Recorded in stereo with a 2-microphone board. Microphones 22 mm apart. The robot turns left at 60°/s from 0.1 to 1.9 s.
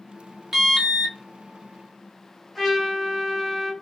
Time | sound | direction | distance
0.5 | an alarm | 165° right | 0.8 m
2.5 | a trumpet | 15° left (ahead or behind) | 1.5 m